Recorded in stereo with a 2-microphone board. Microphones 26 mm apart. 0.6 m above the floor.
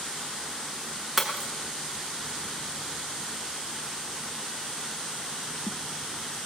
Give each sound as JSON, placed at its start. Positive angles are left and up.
{"t": 1.2, "sound": "breaking glass", "side_deg": -10, "distance_m": 3.0}